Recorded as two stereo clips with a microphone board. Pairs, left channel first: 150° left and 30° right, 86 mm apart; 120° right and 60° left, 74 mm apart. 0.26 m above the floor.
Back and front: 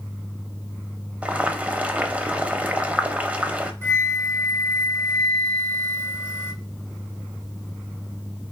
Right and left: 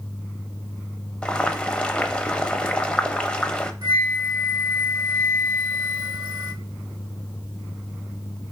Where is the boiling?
70° right, 0.6 m.